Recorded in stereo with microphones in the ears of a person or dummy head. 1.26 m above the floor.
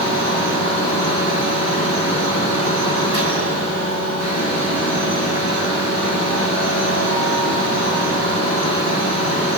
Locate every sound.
0.0 s a fan: 60° left (ahead or behind), 7.5 m